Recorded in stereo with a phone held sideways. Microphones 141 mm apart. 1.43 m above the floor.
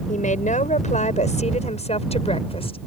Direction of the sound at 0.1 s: 65° left (ahead or behind).